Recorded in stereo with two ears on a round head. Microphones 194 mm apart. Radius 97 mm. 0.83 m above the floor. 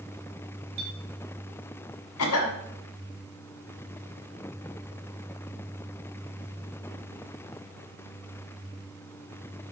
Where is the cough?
75° left (ahead or behind), 1.4 m.